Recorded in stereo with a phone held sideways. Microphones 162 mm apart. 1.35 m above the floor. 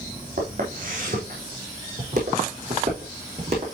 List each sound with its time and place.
0.4 s footsteps: 55° right (ahead or behind), 4 m; by 3.6 s 40° right (ahead or behind), 5 m